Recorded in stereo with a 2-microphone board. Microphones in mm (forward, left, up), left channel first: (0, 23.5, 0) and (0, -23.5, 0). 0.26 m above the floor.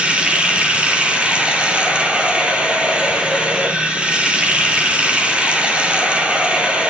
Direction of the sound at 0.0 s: 25° right (ahead or behind).